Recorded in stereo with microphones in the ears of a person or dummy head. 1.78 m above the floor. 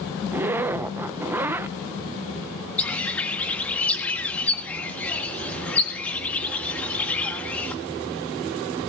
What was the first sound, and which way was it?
A zipper, 10° right (ahead or behind).